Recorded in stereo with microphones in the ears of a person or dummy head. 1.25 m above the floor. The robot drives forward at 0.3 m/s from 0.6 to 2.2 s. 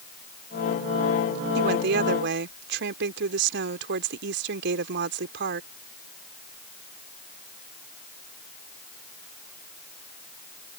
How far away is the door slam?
No door slam in this recording.